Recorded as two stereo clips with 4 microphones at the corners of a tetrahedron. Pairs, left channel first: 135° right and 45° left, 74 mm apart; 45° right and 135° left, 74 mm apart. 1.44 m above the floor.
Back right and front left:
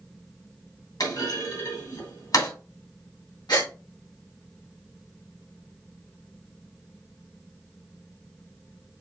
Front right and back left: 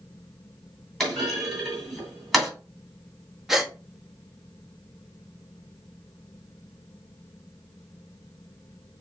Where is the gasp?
145° right, 1.4 m.